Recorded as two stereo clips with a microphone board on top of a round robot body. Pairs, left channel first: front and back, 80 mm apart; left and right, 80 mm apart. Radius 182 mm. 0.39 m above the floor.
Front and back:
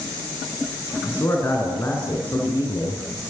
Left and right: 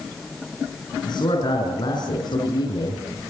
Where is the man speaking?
60° left, 7 m.